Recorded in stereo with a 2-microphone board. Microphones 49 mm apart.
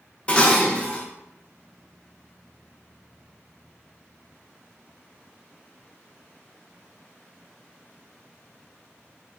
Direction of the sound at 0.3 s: 25° left (ahead or behind).